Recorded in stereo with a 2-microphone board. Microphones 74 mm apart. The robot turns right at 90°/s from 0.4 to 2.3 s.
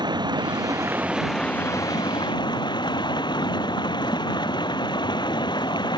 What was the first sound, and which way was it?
Running water, 80° right.